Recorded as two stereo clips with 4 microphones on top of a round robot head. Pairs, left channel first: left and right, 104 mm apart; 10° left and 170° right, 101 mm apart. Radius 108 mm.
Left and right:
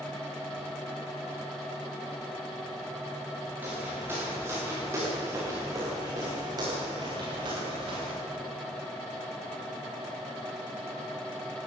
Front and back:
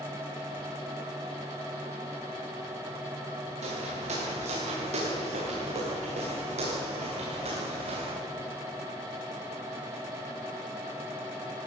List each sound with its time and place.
3.6 s footsteps: 165° right, 8.5 m; by 8.2 s 140° right, 7.5 m